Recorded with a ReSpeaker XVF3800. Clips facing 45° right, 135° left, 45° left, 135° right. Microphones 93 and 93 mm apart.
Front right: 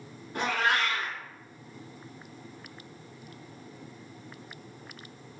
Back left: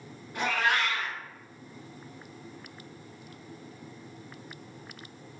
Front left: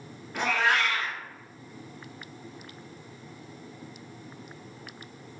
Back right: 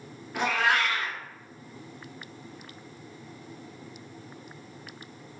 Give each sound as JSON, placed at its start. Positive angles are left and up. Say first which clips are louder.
{"t": 0.3, "sound": "a cat meowing", "louder": "even, even", "azimuth_deg": -55, "distance_m": 0.6}